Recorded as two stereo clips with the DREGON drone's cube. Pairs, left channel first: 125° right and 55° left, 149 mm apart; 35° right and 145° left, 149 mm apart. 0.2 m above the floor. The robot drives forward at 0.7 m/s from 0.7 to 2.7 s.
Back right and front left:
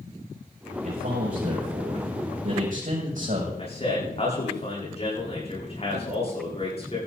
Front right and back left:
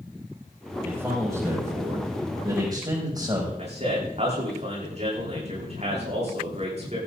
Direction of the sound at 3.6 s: 170° right.